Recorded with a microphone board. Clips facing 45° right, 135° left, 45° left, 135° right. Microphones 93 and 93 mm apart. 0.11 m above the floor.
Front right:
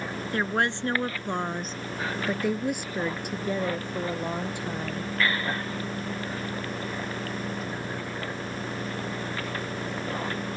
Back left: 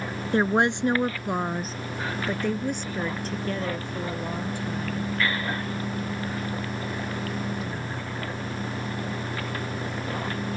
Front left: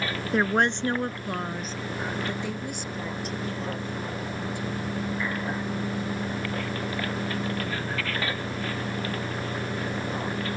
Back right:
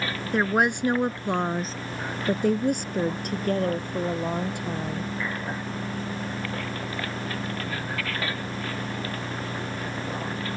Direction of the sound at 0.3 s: 130° left.